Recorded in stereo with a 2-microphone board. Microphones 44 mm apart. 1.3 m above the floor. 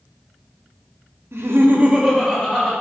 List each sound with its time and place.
1.3 s laughter: 75° right (ahead or behind), 0.6 m; by 2.7 s 10° left (ahead or behind), 1.1 m